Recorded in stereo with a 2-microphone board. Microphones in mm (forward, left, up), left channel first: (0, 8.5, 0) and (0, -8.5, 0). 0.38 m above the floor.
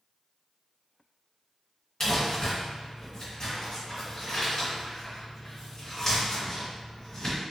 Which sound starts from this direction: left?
Crumpling, at 2.0 s.